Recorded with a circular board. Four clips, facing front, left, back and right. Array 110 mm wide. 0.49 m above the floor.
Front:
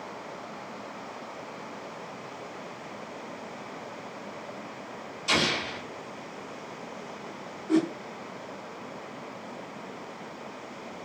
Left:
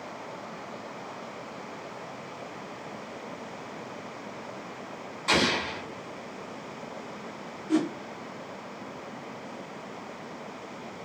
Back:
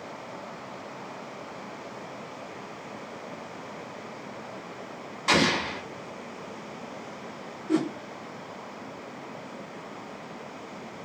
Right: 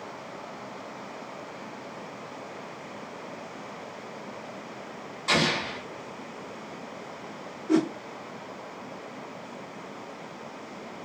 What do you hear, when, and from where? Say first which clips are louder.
5.3 s an explosion: even, back 4 dB; 175° left, 0.8 m
7.7 s a whoosh: right 2 dB, front 1 dB; 90° right, 0.8 m